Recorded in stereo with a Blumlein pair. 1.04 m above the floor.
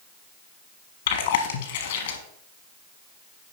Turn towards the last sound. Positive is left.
turn(degrees=55)